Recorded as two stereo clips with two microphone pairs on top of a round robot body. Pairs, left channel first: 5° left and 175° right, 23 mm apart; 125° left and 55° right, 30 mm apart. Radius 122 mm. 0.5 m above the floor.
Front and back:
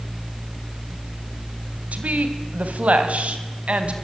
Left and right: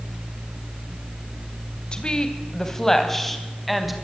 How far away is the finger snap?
No finger snap in this recording.